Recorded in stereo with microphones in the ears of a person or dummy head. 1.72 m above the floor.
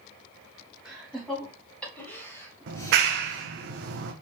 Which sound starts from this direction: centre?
Laughter, at 0.8 s.